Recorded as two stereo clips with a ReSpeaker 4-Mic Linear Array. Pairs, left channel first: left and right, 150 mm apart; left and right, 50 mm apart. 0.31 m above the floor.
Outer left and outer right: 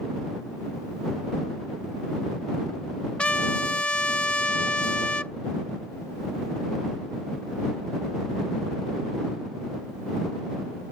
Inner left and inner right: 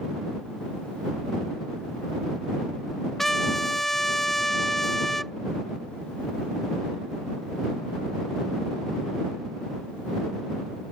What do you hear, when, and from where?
3.2 s a trumpet: 10° left (ahead or behind)